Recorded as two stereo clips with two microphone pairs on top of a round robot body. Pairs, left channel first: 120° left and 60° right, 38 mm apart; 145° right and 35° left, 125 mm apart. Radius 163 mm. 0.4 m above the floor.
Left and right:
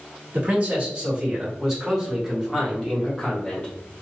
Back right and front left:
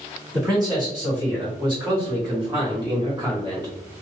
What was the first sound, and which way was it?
A man speaking, 15° right.